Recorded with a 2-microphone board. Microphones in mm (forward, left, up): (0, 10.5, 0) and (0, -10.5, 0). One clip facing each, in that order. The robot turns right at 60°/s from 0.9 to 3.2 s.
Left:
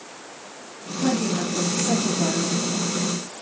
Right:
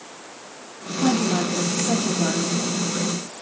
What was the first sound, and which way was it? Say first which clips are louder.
A woman speaking: right 2 dB; 160° right.